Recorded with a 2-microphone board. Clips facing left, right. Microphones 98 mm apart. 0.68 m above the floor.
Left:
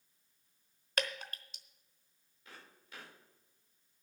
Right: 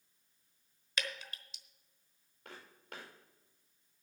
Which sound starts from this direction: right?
Footsteps, at 2.5 s.